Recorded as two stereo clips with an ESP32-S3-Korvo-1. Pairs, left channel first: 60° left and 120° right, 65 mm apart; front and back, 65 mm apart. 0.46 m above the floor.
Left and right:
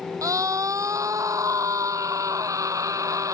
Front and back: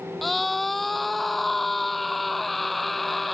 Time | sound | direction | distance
0.2 | a scream | 90° right | ?